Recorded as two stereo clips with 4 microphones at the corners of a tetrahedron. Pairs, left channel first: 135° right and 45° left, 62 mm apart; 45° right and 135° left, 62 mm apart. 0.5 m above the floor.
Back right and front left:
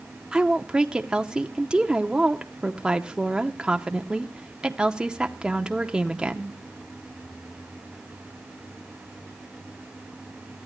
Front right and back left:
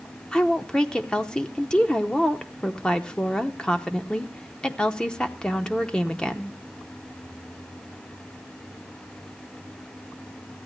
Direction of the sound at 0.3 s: Straight ahead.